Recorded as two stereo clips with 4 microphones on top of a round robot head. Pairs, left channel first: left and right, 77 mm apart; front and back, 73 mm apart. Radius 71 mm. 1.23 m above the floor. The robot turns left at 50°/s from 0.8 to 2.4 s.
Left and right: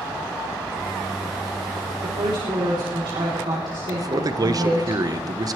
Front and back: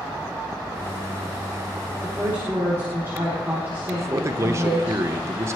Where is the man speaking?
125° right, 1.0 m.